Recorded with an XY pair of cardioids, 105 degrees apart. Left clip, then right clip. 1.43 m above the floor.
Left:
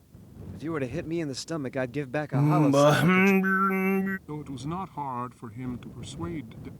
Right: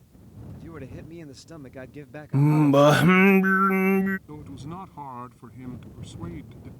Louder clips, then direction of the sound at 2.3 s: Right 3 dB; 25° right.